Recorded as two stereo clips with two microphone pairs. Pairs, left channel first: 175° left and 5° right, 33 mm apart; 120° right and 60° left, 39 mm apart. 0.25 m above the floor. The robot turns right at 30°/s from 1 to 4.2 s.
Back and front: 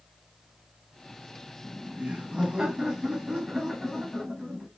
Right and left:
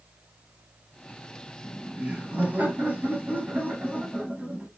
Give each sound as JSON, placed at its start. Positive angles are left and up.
{"t": 1.6, "sound": "laughter", "azimuth_deg": 20, "distance_m": 1.3}